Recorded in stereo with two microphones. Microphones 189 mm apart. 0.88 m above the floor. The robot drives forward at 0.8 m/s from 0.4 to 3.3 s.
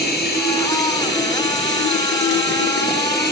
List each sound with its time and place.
0.0 s running water: 60° left (ahead or behind), 2.5 m